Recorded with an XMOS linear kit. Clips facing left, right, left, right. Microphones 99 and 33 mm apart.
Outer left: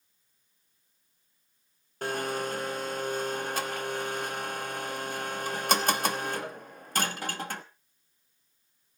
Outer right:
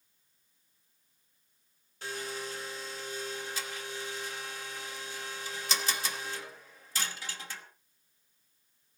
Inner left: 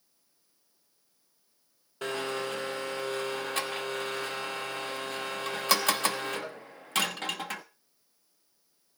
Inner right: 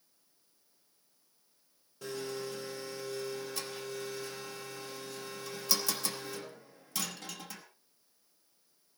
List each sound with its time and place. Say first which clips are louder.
2.0 s a blender: outer left 8 dB, inner left 6 dB; 60° left (ahead or behind), 1.0 m